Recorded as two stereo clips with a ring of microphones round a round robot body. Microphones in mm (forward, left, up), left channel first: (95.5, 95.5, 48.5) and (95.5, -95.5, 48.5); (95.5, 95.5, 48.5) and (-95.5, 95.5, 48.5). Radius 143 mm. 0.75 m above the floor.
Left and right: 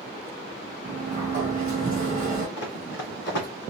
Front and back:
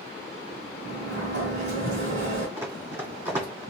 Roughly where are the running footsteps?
Left.